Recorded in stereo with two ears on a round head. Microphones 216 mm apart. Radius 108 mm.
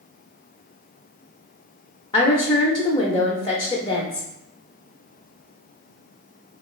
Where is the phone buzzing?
I don't hear a phone buzzing.